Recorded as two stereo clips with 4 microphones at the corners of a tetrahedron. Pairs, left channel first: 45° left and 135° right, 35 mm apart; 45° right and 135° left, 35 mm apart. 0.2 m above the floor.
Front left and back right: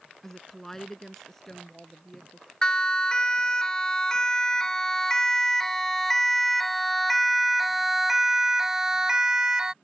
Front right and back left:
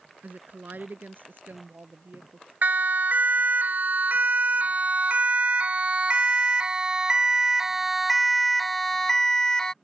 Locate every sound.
0.2 s a woman speaking: 125° left
2.6 s a siren: 115° left; by 9.7 s 85° right